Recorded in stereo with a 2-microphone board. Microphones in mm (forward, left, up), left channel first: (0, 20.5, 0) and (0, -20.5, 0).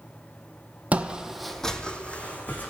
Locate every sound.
0.9 s footsteps: 35° right (ahead or behind), 0.6 m; by 2.7 s 45° left (ahead or behind), 1.2 m